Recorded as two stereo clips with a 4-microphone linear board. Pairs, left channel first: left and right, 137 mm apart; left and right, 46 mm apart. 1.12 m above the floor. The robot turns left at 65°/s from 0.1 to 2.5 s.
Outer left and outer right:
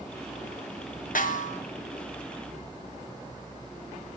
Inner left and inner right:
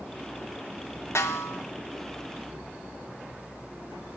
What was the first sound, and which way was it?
A snare drum, 80° left.